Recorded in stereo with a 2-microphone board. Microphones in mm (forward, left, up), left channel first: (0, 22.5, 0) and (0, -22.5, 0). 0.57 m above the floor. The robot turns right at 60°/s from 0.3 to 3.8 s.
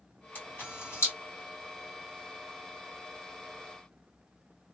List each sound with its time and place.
0.3 s a camera shutter: 45° left (ahead or behind), 2.5 m; by 1.1 s 75° left (ahead or behind), 2.5 m